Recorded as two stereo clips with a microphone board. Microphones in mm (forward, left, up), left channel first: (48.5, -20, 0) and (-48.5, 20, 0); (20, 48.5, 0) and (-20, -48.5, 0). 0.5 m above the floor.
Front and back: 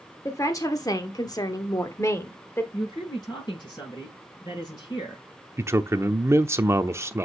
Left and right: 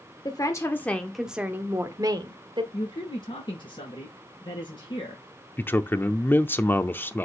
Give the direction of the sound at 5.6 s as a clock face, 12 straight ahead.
8 o'clock.